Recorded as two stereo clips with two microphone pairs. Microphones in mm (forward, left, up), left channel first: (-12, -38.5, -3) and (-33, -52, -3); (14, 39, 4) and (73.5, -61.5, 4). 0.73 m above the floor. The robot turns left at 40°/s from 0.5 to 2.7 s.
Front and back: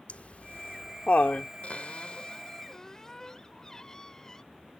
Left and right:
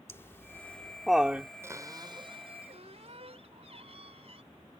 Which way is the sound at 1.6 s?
5° left.